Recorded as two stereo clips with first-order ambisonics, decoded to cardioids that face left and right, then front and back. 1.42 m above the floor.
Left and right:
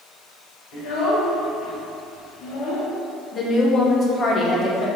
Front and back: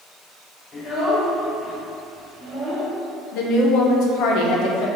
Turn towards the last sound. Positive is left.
turn(degrees=25)